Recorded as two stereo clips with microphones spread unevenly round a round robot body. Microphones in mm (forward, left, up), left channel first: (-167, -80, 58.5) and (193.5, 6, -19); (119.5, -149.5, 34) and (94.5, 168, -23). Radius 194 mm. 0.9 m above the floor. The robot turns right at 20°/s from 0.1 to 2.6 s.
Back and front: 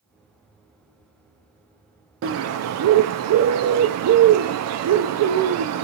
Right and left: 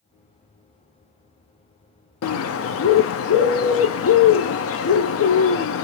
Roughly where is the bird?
Ahead right.